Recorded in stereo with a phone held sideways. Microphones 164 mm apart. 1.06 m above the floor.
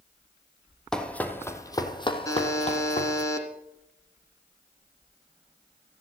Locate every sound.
0.9 s running footsteps: 5° left (ahead or behind), 1.7 m; by 3.2 s 50° left (ahead or behind), 1.9 m
2.2 s a buzzer: 20° left (ahead or behind), 2.5 m